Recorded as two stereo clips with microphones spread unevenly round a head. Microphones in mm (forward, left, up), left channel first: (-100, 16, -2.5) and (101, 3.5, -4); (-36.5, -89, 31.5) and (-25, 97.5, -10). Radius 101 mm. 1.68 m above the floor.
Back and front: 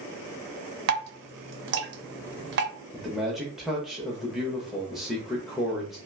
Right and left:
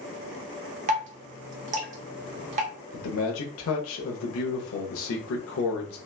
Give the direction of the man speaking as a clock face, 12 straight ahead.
3 o'clock.